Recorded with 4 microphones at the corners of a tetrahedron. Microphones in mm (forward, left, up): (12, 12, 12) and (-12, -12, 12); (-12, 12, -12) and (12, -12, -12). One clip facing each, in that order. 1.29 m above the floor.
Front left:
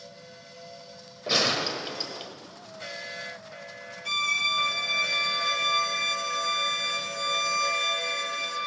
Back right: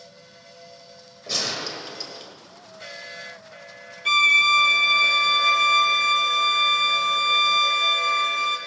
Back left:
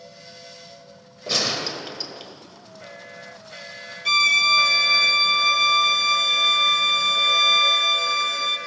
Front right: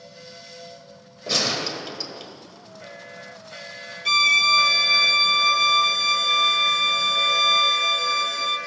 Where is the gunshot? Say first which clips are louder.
Front left 3 dB, even; 55° left, 1.1 m.